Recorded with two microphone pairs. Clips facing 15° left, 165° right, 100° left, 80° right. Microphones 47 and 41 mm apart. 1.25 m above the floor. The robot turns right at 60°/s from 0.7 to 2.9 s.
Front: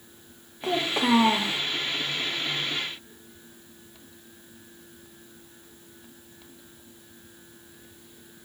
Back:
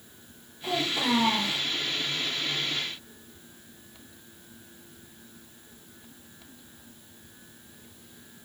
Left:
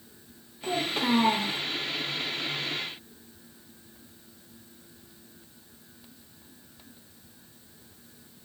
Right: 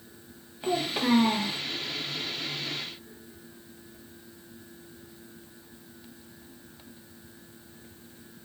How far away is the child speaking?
About 0.8 m.